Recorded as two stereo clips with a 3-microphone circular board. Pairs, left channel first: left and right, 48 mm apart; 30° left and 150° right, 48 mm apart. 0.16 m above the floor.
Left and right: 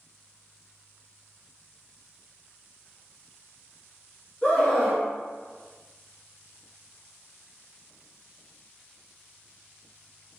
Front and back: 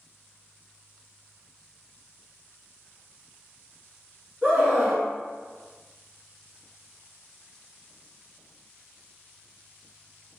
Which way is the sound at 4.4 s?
140° left.